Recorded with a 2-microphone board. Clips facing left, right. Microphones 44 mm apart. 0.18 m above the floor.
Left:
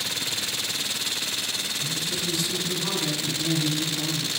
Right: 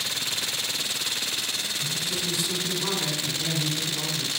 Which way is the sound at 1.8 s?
15° right (ahead or behind).